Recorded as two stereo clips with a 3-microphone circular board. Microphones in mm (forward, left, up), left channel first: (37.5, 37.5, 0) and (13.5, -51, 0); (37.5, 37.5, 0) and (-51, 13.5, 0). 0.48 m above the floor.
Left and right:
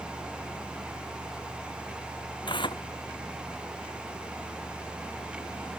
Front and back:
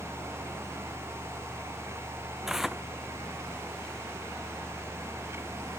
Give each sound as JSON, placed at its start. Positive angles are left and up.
{"t": 2.5, "sound": "tearing paper", "azimuth_deg": 110}